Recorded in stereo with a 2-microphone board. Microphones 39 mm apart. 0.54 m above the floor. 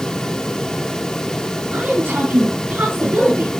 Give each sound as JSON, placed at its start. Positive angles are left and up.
{"t": 1.7, "sound": "a woman speaking", "side_deg": -60, "distance_m": 8.5}